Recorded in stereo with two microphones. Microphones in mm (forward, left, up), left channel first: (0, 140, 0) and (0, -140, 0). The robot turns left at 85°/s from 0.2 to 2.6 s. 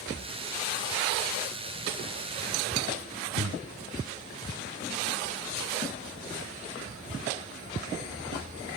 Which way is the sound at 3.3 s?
50° left (ahead or behind).